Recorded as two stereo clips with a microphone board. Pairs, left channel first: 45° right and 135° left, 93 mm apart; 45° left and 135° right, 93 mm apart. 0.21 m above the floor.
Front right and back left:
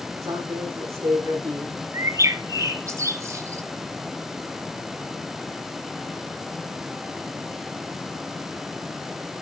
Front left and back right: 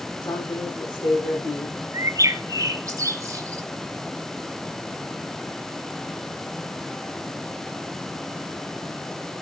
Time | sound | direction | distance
0.2 | a man speaking | 75° left | 8.5 m
1.9 | a bird | straight behind | 1.0 m